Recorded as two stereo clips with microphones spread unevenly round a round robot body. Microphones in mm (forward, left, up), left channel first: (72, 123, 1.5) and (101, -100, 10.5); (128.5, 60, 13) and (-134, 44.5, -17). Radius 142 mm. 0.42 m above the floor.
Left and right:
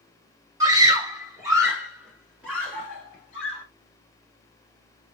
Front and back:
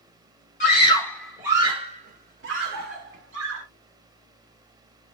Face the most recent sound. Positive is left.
turn(degrees=-170)